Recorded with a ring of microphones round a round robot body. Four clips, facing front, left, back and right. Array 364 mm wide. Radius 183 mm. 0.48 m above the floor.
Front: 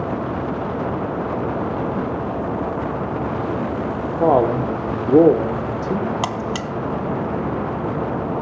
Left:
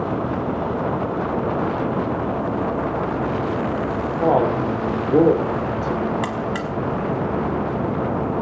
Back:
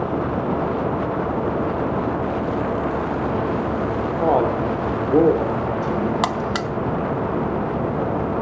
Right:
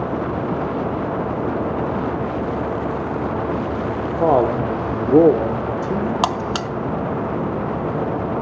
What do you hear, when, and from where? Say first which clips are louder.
4.1 s a man speaking: right 2 dB, front 4 dB; 35° right, 1.6 m
6.2 s a buzzer: right 3 dB, back 2 dB; 95° right, 0.8 m